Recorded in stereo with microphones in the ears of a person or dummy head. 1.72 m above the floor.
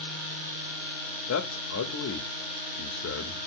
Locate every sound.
1.3 s a man speaking: 85° left, 0.5 m